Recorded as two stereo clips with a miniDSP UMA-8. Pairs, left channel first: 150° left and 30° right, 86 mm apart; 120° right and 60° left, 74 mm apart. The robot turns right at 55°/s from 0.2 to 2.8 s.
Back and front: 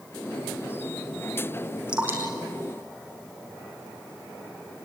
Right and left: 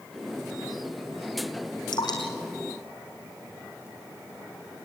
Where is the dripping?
110° right, 5 m; by 3.9 s 60° right, 5 m.